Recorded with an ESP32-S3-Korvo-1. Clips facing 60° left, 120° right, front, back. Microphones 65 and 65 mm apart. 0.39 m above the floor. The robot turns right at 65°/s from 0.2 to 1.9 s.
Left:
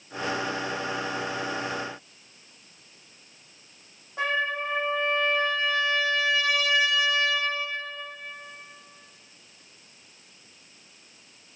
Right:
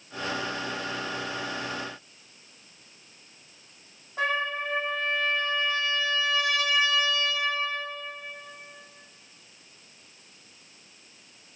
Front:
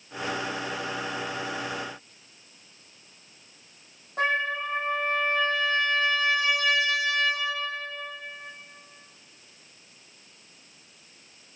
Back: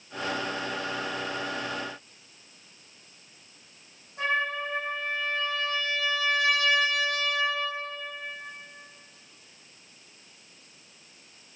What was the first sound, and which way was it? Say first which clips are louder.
A trumpet: left 1 dB, front 2 dB; 25° right.